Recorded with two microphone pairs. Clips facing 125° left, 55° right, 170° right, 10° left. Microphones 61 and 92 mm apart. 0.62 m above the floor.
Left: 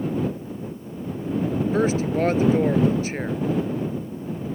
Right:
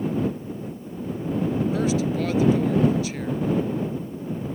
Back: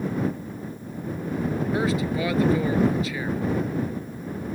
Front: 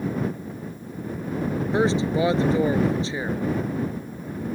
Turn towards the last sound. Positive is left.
turn(degrees=75)